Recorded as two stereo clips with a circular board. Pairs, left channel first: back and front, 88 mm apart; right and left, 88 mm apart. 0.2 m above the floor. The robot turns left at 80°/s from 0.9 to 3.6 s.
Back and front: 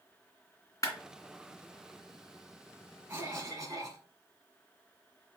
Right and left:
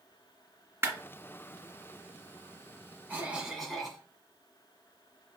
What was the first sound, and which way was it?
A clap, 145° left.